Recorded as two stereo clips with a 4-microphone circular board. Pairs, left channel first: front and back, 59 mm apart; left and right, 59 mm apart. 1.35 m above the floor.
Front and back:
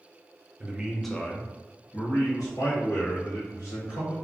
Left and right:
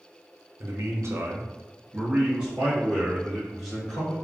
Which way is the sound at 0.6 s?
115° right.